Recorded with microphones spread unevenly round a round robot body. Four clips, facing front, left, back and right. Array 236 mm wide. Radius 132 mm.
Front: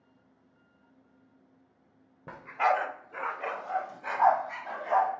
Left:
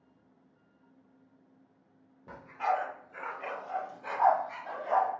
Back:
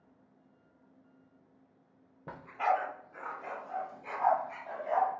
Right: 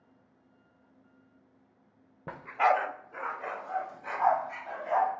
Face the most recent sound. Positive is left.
turn(degrees=25)